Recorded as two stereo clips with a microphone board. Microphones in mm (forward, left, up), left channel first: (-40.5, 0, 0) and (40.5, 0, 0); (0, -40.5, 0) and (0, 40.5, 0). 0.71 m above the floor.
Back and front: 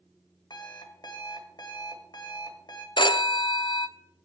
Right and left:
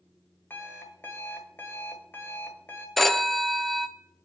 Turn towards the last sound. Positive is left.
turn(degrees=180)